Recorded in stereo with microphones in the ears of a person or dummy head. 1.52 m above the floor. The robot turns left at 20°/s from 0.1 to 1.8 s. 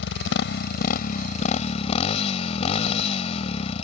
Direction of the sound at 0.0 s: 70° left.